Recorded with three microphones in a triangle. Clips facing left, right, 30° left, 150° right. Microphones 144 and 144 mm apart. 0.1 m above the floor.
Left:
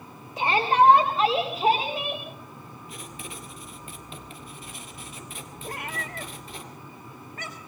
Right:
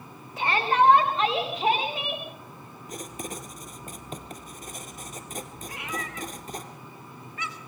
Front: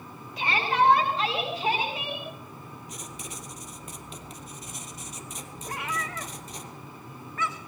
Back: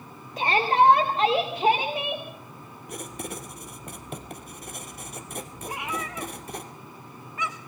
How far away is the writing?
About 1.9 m.